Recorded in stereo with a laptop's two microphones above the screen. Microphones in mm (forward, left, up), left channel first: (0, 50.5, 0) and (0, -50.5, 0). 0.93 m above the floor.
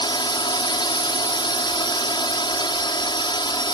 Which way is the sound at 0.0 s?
50° left (ahead or behind).